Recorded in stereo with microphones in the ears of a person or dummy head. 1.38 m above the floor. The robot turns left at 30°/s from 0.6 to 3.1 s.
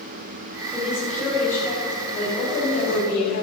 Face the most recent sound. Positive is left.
turn(degrees=115)